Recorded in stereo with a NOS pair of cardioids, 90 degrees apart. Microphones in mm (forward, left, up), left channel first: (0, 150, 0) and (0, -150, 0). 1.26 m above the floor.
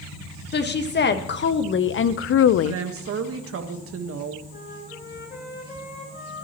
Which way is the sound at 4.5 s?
40° left.